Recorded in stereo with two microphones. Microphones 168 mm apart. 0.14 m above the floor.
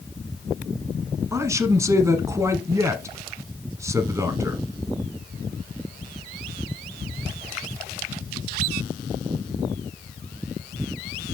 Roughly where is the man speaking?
Centre.